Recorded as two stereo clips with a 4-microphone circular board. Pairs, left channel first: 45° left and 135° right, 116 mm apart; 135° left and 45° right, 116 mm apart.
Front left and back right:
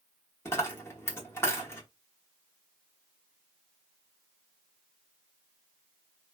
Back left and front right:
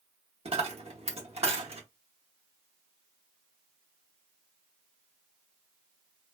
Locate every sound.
0.5 s a dropped coin: 25° right, 0.9 m